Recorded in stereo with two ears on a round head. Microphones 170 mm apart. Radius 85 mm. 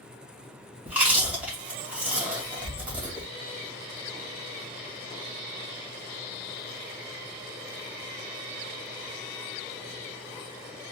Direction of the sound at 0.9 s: 5° right (ahead or behind).